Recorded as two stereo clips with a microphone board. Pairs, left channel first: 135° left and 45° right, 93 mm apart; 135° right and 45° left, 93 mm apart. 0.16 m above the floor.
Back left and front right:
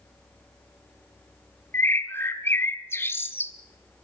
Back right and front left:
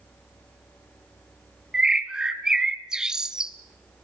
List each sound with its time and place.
1.7 s a bird: 120° left, 1.0 m